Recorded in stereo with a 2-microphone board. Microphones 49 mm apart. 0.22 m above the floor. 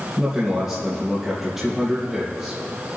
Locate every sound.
0.2 s a man speaking: 15° right (ahead or behind), 3 m